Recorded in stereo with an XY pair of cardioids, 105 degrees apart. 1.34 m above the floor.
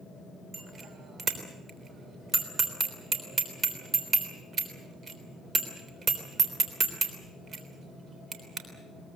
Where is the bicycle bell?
45° right, 3.5 m.